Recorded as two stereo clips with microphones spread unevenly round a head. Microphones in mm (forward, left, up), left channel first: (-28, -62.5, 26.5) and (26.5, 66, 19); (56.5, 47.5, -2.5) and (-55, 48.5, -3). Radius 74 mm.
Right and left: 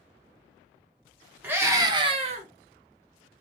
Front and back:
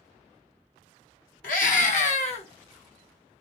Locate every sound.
1.4 s a scream: 10° right, 1.2 m; by 2.5 s 30° left, 0.9 m